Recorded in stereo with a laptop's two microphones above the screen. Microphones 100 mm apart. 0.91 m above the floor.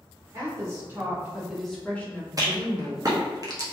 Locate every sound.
0.3 s a woman speaking: 35° right (ahead or behind), 0.9 m; by 3.0 s 30° left (ahead or behind), 1.1 m
2.4 s a rattle: 40° right (ahead or behind), 0.6 m